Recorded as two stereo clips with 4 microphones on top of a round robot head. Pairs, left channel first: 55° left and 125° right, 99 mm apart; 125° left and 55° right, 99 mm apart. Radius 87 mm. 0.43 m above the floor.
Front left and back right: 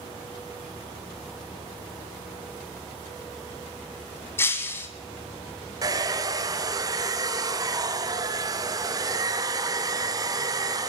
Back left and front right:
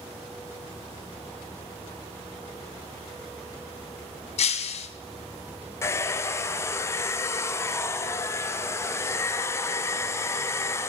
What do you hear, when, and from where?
4.4 s breaking glass: 125° left, 2 m
5.8 s a hair dryer: 175° right, 1.2 m